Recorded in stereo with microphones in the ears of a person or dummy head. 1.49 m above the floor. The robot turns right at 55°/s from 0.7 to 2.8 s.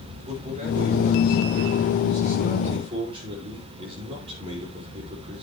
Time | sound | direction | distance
0.2 | a man speaking | 150° right | 5 m